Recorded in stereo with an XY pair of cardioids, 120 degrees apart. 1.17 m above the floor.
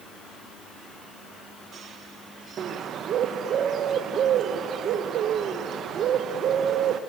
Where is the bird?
55° right, 0.8 m.